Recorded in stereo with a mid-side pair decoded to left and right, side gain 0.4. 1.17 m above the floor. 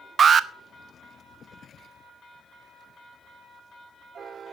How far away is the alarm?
About 0.8 m.